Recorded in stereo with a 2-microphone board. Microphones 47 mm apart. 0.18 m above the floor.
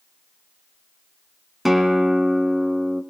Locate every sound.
1.6 s a guitar: 5° right (ahead or behind), 1.4 m